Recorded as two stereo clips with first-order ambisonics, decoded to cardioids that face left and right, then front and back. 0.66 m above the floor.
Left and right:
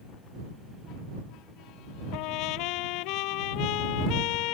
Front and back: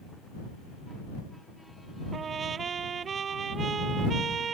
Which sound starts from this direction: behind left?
A trumpet, at 2.1 s.